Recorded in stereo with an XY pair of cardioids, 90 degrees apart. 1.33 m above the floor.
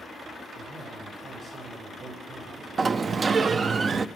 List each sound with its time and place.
0.6 s a man speaking: 45° right, 6.5 m
2.8 s a sliding door: 40° right, 0.5 m